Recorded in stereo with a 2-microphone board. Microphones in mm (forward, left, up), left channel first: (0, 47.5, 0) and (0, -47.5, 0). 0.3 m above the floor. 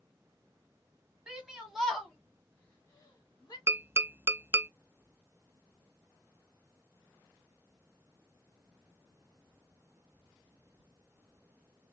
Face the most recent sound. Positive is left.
turn(degrees=-25)  # may be behind; listen again after turning